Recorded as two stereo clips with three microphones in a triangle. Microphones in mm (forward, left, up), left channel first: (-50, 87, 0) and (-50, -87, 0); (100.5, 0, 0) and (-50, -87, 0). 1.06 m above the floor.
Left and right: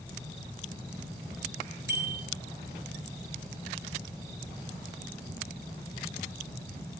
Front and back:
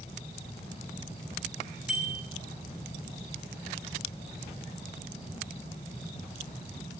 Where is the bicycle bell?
65° right, 5 m.